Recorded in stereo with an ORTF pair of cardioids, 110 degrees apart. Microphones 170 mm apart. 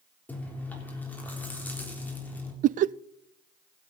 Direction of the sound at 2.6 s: 50° right.